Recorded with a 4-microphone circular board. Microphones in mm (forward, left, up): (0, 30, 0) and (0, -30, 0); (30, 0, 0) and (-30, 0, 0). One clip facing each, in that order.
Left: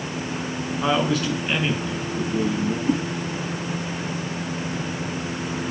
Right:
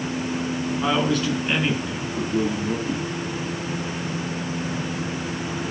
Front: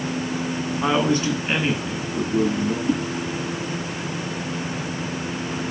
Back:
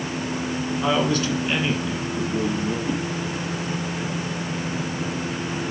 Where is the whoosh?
70° left, 4 m.